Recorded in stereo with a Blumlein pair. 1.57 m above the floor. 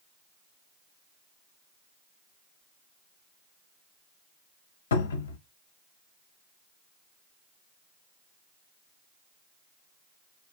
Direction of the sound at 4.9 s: 65° left.